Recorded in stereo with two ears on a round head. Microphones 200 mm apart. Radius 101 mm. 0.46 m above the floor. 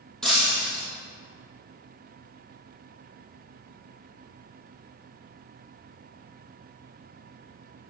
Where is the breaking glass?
Centre (ahead or behind), 3 m.